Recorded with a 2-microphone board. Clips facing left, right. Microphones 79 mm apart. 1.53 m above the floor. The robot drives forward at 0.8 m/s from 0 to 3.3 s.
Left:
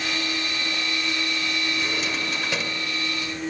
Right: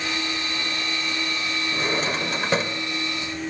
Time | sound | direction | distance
1.7 | a drawer | 40° right (ahead or behind) | 1.6 m